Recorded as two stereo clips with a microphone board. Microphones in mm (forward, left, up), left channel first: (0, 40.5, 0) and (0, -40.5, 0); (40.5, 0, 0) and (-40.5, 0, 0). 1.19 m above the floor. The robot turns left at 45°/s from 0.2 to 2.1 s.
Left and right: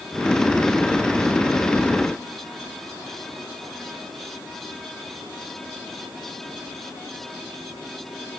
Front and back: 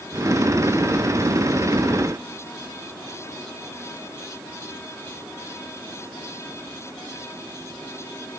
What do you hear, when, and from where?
Only background noise.